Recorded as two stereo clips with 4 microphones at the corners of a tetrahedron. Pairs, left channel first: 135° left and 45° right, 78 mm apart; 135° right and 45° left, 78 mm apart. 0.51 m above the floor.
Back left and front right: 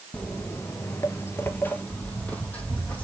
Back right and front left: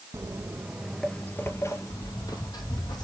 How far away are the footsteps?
About 0.6 m.